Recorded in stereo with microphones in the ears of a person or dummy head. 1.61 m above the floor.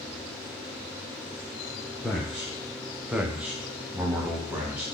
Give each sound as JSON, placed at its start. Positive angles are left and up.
{"t": 2.0, "sound": "a man speaking", "side_deg": 5, "distance_m": 0.6}